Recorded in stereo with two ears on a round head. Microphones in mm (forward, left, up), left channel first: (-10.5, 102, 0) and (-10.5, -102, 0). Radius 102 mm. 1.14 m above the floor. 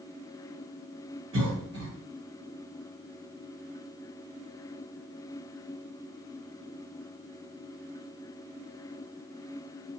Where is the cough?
55° right (ahead or behind), 1.9 m.